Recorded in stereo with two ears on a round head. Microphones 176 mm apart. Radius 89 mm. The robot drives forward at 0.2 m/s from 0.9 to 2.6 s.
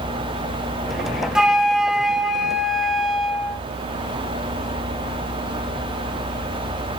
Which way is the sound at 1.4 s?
5° right (ahead or behind).